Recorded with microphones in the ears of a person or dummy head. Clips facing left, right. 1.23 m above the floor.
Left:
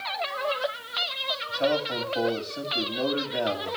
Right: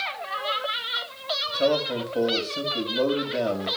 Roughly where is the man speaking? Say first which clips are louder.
Right 3 dB; right.